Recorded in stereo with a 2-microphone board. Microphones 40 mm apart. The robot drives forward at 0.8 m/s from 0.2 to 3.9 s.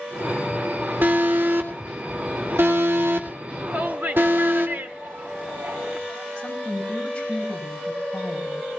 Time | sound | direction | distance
1.0 | an alarm | 55° right (ahead or behind) | 2.5 m
3.7 | a shout | 60° right (ahead or behind) | 2.5 m
6.4 | a woman speaking | 30° left (ahead or behind) | 4.5 m